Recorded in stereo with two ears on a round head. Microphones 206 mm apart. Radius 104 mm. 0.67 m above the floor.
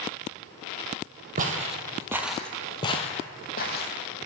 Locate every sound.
1.4 s footsteps: 35° right (ahead or behind), 0.8 m; by 3.9 s 50° left (ahead or behind), 1.1 m